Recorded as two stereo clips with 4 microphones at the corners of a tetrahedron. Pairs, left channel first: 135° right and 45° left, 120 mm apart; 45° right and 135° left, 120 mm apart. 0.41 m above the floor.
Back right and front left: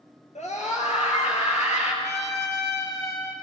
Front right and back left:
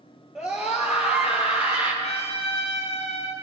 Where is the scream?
145° right, 6 m; by 1.9 s 155° right, 7.5 m.